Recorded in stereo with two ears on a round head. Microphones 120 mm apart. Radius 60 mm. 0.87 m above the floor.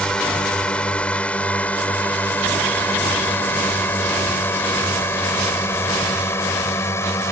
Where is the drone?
5° left (ahead or behind); by 7.3 s 20° left (ahead or behind).